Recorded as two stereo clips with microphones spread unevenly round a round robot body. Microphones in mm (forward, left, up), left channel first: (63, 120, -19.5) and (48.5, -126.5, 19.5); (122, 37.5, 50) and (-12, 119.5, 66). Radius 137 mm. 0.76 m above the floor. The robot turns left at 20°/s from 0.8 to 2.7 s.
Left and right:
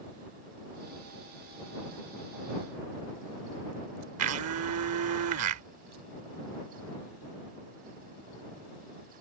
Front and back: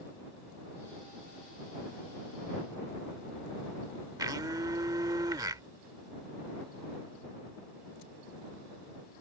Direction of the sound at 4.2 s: 135° right.